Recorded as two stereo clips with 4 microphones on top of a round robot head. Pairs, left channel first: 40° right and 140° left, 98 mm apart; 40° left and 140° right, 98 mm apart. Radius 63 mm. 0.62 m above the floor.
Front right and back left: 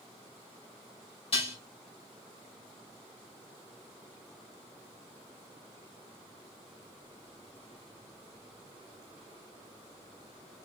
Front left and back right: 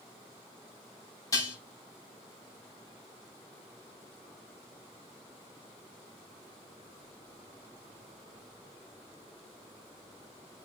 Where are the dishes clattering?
15° right, 3.5 m.